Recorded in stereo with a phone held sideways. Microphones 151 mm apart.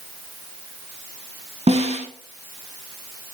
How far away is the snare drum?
About 0.8 m.